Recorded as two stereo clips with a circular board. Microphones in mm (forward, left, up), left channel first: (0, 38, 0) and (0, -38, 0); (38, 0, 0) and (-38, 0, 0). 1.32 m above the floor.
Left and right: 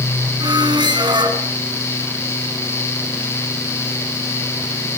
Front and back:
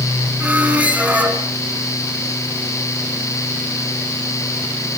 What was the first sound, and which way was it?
A squeak, 110° right.